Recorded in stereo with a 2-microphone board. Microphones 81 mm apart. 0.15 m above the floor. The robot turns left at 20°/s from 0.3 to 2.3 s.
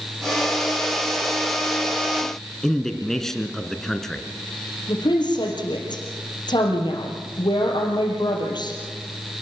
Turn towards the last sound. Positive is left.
turn(degrees=60)  # may be behind; listen again after turning